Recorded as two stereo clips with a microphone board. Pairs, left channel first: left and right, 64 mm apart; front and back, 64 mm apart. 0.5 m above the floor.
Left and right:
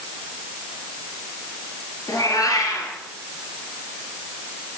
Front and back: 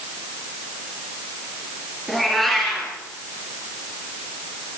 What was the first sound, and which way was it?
A cat meowing, 90° left.